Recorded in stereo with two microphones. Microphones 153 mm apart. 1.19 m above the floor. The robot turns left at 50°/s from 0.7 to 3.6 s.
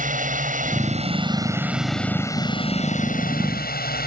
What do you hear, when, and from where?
0.0 s a drone: 120° right; by 4.1 s 95° left